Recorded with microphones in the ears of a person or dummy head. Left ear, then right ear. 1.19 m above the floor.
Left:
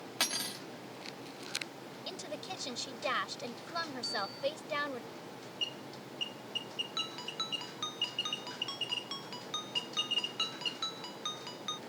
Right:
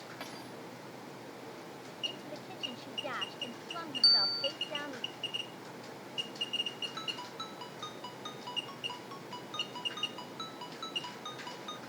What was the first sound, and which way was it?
Cutlery clinking, 75° left (ahead or behind).